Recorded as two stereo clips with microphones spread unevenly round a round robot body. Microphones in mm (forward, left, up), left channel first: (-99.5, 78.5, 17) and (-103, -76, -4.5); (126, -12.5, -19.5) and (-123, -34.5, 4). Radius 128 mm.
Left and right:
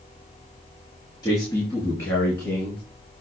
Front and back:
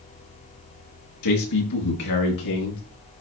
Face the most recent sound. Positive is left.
turn(degrees=5)